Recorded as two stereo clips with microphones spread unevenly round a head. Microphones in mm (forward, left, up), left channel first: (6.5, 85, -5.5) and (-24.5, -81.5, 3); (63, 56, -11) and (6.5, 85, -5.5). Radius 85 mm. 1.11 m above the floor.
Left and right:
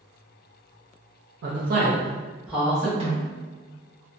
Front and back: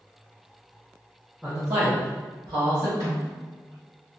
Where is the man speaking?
120° right, 0.6 m; by 2.9 s 165° left, 1.1 m.